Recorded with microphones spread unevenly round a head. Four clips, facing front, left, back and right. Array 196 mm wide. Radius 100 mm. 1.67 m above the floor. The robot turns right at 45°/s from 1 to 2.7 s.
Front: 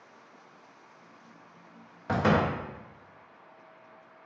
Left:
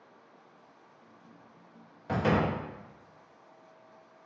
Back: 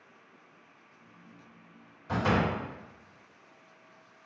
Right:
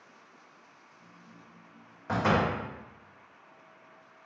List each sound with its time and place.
2.1 s a door slam: 5° right, 0.7 m; by 2.5 s 15° left, 0.7 m